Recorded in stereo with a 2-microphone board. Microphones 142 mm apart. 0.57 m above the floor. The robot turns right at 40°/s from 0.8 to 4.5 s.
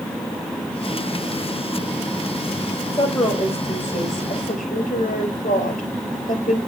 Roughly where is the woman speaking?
Ahead left.